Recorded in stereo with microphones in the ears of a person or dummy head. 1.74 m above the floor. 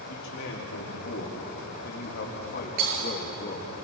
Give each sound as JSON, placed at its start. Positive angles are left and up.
{"t": 0.1, "sound": "a man speaking", "side_deg": 65, "distance_m": 4.0}
{"t": 2.8, "sound": "breaking glass", "side_deg": -45, "distance_m": 10.0}